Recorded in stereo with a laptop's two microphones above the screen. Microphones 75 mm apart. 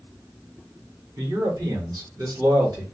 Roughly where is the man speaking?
Right.